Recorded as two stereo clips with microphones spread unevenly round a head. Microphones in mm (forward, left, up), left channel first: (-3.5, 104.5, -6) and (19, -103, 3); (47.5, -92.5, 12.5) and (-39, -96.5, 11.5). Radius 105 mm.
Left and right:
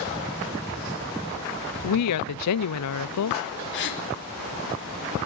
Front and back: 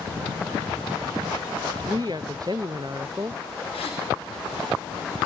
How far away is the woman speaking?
About 0.7 m.